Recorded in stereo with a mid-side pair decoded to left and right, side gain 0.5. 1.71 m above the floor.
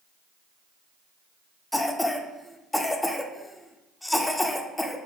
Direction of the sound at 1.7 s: 10° left.